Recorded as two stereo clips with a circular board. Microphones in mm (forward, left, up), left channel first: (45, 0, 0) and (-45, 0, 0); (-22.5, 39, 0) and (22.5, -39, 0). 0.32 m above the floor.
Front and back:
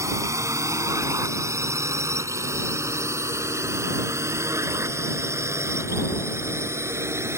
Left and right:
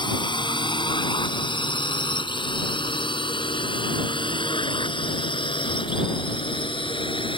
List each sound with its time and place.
0.0 s a drone: 130° left; by 7.4 s 120° left